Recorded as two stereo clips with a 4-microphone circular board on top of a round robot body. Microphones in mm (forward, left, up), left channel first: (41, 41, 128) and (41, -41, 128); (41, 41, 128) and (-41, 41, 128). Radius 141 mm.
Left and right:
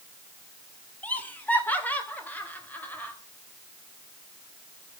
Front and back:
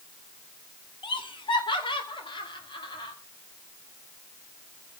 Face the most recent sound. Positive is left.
turn(degrees=20)